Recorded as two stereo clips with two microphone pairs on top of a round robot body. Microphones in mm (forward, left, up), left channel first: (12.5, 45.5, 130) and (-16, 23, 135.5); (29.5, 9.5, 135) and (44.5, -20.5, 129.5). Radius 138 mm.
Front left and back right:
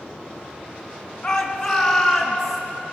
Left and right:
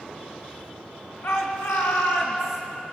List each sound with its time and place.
1.2 s a shout: 110° left, 4 m; by 2.6 s 125° left, 5.5 m